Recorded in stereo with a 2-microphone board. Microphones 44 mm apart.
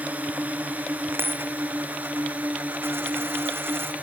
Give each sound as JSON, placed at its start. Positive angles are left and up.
{"t": 0.0, "sound": "a drone", "side_deg": -35}
{"t": 1.1, "sound": "a dropped coin", "side_deg": -60}